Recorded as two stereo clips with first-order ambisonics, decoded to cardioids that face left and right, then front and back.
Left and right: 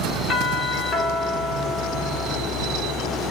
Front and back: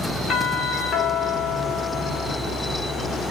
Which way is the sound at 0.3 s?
55° left.